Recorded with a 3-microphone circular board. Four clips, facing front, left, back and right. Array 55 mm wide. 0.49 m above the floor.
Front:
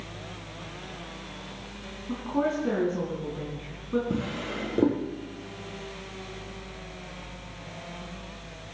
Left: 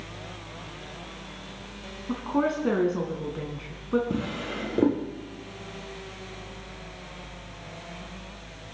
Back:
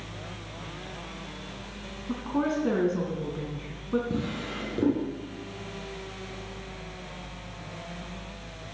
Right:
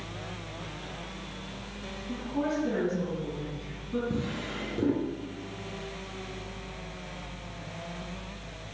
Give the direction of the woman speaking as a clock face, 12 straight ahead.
9 o'clock.